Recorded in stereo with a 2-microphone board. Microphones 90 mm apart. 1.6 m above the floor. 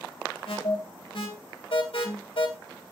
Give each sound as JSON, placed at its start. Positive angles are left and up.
{"t": 0.5, "sound": "an alarm", "side_deg": 75, "distance_m": 3.5}